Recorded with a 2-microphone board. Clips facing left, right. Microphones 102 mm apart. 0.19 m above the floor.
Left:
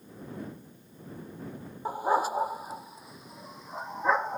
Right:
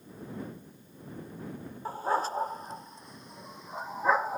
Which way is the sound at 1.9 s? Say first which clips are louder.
Left 3 dB; 15° left (ahead or behind).